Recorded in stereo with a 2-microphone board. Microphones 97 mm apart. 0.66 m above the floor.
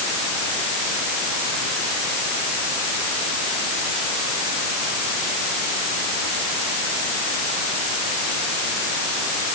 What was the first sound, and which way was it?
Only background noise.